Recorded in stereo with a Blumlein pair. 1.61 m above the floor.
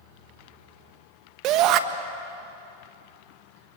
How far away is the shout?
About 1.6 m.